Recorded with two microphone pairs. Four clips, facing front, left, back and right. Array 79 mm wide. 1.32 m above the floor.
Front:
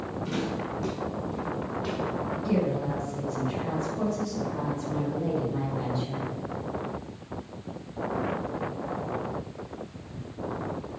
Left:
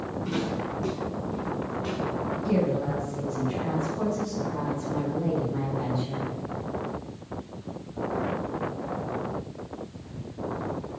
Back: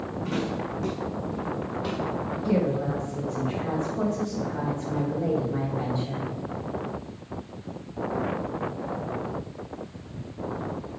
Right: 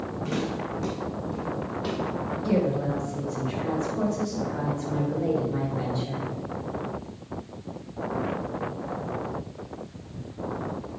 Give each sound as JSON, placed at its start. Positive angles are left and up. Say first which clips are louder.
{"t": 0.2, "sound": "footsteps", "louder": "even, back 2 dB", "azimuth_deg": -110, "distance_m": 4.5}
{"t": 2.4, "sound": "a woman speaking", "louder": "right 1 dB, back 3 dB", "azimuth_deg": -125, "distance_m": 4.0}